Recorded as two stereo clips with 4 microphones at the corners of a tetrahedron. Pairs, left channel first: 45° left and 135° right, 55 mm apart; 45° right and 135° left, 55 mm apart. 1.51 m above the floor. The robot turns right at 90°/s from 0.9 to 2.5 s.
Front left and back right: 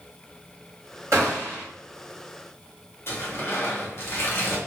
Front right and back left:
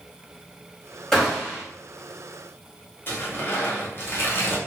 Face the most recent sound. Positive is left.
turn(degrees=5)